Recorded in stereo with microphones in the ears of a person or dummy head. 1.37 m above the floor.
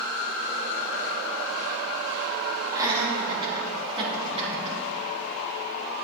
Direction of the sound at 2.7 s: 15° right (ahead or behind).